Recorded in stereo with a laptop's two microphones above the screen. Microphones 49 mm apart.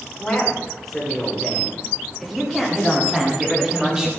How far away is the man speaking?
About 4 m.